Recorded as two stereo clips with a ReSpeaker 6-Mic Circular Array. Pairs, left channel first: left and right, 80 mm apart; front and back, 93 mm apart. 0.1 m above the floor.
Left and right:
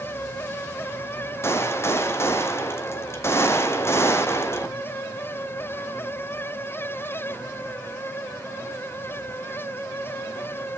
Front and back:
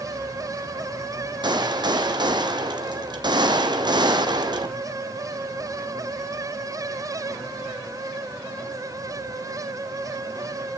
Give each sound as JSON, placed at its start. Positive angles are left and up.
{"t": 1.4, "sound": "a gunshot", "azimuth_deg": 145, "distance_m": 1.1}